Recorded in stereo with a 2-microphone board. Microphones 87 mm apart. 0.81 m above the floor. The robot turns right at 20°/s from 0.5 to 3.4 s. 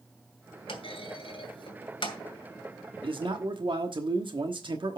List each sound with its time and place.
0.7 s a clunk: 85° left, 2 m; by 2.2 s 65° left (ahead or behind), 2 m
3.0 s a man speaking: 70° right (ahead or behind), 1.2 m; by 5.0 s 65° right (ahead or behind), 1.2 m